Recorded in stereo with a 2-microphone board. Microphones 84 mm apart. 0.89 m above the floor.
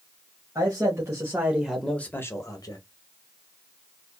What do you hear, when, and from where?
0.6 s a man speaking: 45° right (ahead or behind), 1.3 m; by 2.8 s 55° left (ahead or behind), 0.9 m